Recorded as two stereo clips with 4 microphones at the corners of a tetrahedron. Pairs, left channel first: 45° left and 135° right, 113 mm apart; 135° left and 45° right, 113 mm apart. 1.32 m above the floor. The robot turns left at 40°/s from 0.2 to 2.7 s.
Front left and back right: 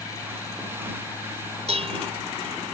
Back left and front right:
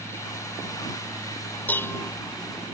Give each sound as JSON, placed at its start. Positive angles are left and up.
{"t": 1.7, "sound": "dishes clattering", "azimuth_deg": -150}